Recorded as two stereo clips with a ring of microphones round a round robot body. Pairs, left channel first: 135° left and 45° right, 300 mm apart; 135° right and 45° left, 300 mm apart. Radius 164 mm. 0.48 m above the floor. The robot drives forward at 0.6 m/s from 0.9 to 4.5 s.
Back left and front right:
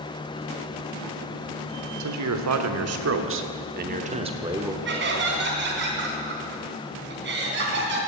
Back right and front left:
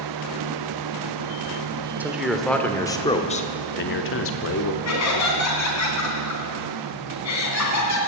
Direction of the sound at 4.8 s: 100° right.